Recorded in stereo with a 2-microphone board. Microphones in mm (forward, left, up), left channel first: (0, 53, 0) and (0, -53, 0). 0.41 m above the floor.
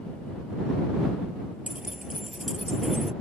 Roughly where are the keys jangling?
Centre.